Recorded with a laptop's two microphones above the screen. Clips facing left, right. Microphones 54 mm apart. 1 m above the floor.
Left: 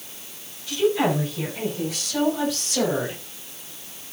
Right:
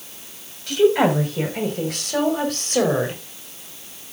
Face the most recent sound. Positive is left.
turn(degrees=-45)  # may be behind; listen again after turning